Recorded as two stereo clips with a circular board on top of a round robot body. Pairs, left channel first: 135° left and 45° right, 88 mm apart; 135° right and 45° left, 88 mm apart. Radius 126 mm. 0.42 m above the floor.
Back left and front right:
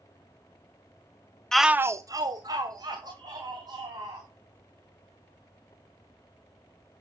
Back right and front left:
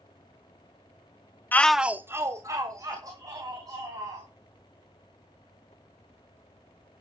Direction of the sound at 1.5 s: 150° right.